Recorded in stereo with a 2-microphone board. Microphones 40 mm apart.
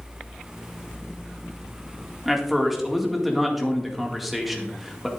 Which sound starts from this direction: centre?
A man speaking, at 2.2 s.